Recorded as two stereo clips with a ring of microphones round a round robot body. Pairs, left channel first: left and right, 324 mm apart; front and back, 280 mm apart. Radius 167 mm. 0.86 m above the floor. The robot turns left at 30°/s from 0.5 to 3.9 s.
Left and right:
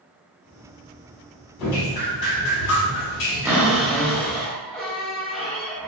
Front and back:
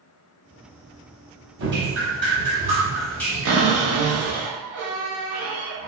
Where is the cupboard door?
170° right, 0.7 m; by 5.9 s 175° left, 0.7 m.